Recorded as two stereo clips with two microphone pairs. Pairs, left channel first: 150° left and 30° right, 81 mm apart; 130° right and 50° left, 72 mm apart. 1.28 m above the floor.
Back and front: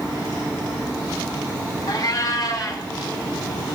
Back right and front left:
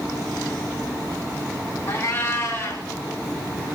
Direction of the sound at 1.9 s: Straight behind.